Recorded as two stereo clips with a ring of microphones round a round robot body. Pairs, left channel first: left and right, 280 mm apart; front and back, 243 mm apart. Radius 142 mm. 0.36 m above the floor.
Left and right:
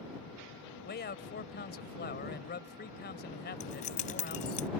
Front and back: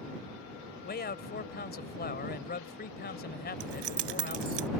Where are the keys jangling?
155° left.